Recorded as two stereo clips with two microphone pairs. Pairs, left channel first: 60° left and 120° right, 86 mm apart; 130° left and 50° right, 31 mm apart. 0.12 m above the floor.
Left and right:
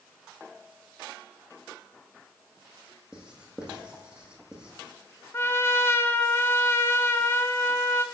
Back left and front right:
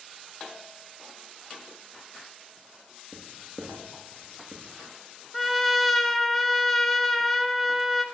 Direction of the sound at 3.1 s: 160° left.